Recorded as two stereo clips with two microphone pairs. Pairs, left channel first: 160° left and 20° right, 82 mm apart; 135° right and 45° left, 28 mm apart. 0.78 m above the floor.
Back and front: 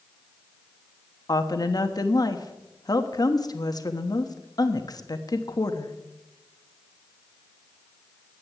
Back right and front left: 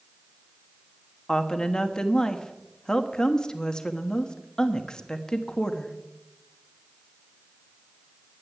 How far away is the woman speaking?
About 1.1 m.